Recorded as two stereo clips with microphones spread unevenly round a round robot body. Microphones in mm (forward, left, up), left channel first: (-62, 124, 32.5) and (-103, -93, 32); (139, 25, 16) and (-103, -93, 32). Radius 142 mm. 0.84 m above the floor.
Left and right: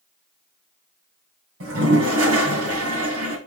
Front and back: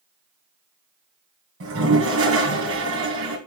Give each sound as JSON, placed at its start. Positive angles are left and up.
{"t": 1.6, "sound": "a toilet flushing", "azimuth_deg": -115, "distance_m": 2.5}